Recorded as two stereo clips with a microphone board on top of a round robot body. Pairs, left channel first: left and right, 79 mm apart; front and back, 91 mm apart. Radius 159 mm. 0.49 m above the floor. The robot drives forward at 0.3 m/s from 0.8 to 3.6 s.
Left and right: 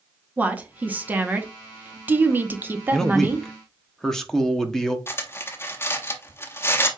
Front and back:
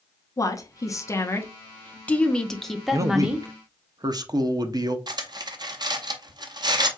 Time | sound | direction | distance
0.4 | a woman speaking | 30° right | 1.1 m
2.9 | a man speaking | 170° left | 0.8 m
5.1 | cutlery clinking | 145° left | 0.8 m